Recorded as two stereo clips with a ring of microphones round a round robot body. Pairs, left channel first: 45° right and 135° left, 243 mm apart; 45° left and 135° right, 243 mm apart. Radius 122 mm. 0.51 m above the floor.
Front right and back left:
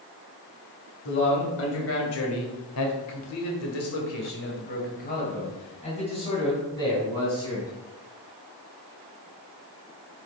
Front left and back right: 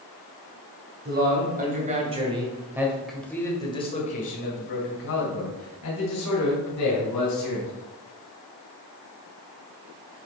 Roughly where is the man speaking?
Right.